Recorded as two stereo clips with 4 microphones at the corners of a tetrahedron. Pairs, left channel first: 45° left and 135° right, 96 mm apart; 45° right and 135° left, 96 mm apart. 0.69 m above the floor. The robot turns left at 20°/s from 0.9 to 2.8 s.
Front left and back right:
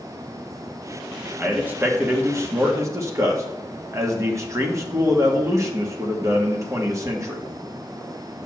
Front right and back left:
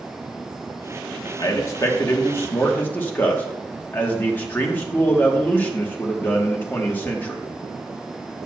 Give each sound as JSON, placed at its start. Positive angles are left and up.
{"t": 1.4, "sound": "a man speaking", "azimuth_deg": -70, "distance_m": 1.4}